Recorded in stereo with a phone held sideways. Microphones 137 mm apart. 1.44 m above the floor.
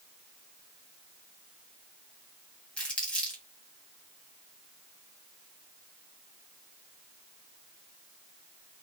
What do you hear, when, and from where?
2.8 s crumpling: 5° left (ahead or behind), 2 m